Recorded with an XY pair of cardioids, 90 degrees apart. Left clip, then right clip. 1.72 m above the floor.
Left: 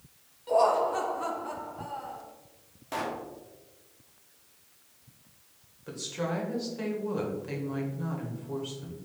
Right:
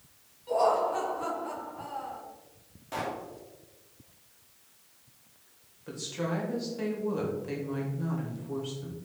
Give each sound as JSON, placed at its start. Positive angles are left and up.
{"t": 0.5, "sound": "laughter", "azimuth_deg": 40, "distance_m": 1.3}
{"t": 2.9, "sound": "a pop", "azimuth_deg": 35, "distance_m": 1.2}
{"t": 5.9, "sound": "a woman speaking", "azimuth_deg": 10, "distance_m": 1.5}